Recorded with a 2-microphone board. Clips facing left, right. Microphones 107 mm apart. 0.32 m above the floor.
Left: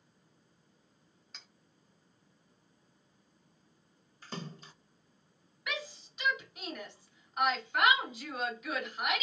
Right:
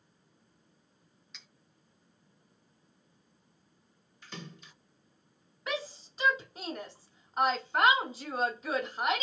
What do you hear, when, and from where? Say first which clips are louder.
1.3 s cutlery clinking: left 2 dB; 45° left (ahead or behind), 0.8 m
4.2 s a splash: left 3 dB; 40° left (ahead or behind), 0.6 m
5.7 s a shout: right 4 dB; 35° right (ahead or behind), 1.0 m